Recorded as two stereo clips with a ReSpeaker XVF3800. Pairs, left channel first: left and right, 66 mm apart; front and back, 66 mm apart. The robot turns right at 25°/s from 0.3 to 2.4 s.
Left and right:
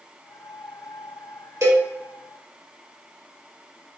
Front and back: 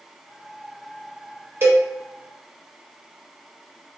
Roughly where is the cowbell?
Behind right.